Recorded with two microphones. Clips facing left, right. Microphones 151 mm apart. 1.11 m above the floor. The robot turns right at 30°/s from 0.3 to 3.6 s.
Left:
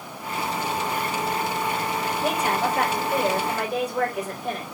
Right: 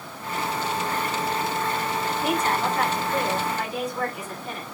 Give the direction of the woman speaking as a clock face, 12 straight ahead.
11 o'clock.